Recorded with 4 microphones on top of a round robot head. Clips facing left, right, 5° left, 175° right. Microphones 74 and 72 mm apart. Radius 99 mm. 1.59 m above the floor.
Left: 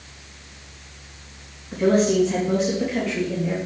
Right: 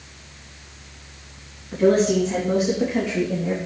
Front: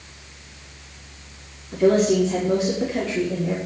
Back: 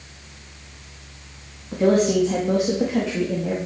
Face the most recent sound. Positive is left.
turn(degrees=-155)